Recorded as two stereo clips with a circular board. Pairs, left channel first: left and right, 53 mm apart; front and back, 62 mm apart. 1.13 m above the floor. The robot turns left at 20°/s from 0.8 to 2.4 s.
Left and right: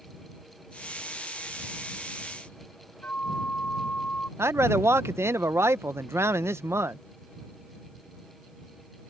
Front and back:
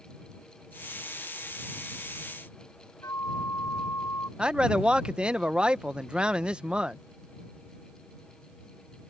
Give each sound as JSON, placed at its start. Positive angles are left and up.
{"t": 3.0, "sound": "a flute", "azimuth_deg": 30}
{"t": 4.4, "sound": "a man speaking", "azimuth_deg": -110}